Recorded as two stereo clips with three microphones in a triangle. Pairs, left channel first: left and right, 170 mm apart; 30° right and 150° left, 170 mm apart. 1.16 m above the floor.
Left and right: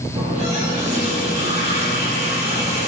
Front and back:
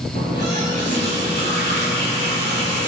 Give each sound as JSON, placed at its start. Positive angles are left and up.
{"t": 0.1, "sound": "a running tap", "azimuth_deg": -45, "distance_m": 3.5}